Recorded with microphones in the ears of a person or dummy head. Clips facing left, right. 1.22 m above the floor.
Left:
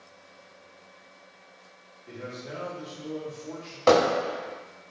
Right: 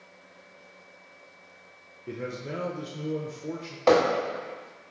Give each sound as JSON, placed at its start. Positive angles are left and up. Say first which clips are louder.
{"t": 2.1, "sound": "a man speaking", "louder": "right 4 dB", "side_deg": -45, "distance_m": 1.1}
{"t": 3.9, "sound": "hammering", "louder": "left 1 dB", "side_deg": 5, "distance_m": 4.0}